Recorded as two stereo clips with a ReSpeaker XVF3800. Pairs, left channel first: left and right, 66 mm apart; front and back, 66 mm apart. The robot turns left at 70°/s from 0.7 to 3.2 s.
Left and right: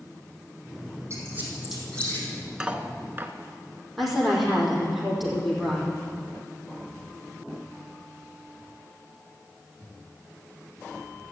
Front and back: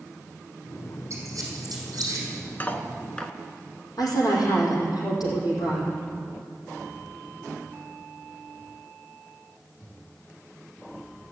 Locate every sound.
1.1 s a squeak: 140° right, 4 m; by 2.3 s 140° left, 4 m
2.6 s cutlery clinking: 25° right, 0.9 m; by 3.3 s 65° right, 0.9 m
4.0 s a woman speaking: straight ahead, 5 m